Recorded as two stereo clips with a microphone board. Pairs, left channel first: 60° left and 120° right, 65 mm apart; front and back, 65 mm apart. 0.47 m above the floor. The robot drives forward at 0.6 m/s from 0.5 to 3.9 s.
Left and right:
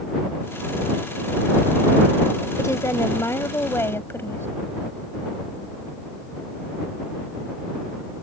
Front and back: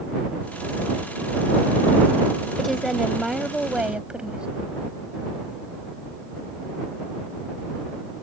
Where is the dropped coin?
I don't hear a dropped coin.